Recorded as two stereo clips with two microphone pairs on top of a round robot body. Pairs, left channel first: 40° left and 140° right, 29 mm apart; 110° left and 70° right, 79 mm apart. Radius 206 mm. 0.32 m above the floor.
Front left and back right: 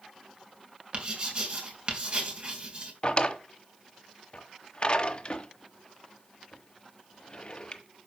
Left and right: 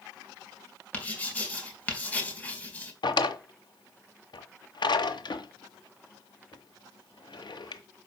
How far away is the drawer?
About 1.2 m.